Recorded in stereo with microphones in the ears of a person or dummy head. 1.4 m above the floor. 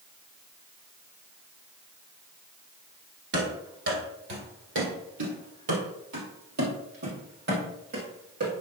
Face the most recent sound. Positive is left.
turn(degrees=-45)  # may be behind; listen again after turning